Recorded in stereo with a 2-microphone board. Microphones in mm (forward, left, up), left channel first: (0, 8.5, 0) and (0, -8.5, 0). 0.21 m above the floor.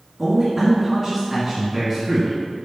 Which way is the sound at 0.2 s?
5° left (ahead or behind).